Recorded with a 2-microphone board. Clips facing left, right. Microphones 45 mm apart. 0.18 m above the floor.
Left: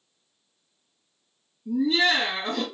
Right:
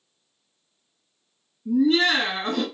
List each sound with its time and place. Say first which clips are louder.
1.6 s laughter: right 3 dB; 55° right (ahead or behind), 1.9 m